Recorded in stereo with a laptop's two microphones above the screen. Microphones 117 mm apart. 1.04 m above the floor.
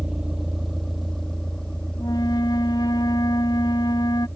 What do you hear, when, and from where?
0.0 s a vehicle: 5° right (ahead or behind); by 4.4 s 15° left (ahead or behind)
2.0 s a flute: 35° left (ahead or behind)